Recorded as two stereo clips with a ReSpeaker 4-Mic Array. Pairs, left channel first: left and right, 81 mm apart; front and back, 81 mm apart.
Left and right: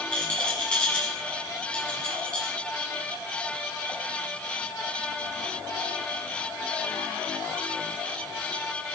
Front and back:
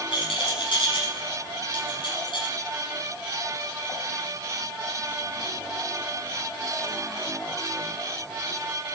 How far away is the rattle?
About 7.5 m.